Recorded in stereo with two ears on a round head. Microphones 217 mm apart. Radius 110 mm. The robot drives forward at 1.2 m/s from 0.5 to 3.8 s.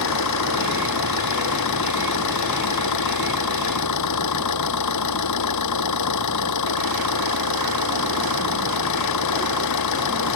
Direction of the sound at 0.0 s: 75° left (ahead or behind).